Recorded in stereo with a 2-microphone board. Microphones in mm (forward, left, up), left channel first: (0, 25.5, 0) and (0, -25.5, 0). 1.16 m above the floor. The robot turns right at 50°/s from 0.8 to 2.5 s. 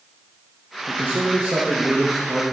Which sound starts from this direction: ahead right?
A man speaking, at 0.9 s.